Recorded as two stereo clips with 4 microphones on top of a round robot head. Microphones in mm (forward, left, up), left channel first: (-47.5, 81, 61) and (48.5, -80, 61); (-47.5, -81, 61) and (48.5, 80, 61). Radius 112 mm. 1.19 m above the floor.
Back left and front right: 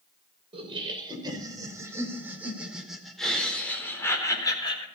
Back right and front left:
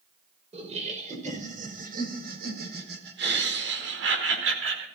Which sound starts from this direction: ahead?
Laughter, at 0.5 s.